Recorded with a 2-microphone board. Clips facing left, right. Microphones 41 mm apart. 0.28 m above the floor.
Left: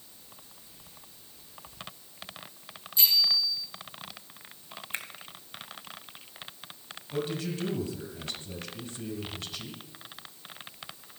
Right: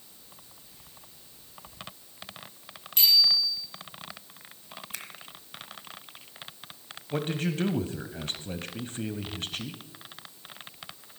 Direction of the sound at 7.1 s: 45° right (ahead or behind).